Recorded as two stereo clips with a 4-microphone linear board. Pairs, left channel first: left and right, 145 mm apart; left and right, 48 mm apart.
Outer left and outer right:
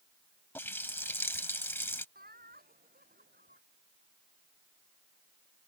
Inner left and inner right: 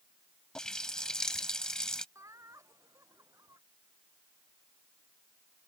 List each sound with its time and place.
0.6 s a running tap: 15° left (ahead or behind)
2.1 s laughter: 85° right